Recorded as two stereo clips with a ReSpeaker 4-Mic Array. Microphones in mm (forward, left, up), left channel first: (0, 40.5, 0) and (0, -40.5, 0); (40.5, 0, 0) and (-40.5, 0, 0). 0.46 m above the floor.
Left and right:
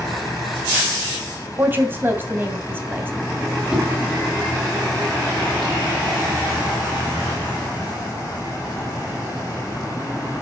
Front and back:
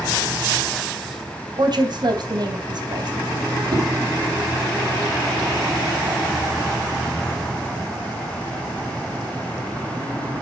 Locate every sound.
1.6 s a woman speaking: 155° right, 3 m
3.7 s a whoosh: 170° right, 2.5 m